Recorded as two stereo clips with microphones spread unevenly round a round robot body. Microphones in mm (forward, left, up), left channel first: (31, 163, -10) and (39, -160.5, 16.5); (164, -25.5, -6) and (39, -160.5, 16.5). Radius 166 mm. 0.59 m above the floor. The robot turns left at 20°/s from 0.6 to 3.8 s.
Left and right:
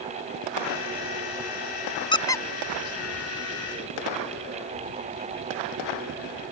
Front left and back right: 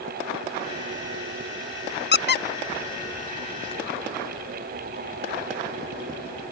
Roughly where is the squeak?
Ahead.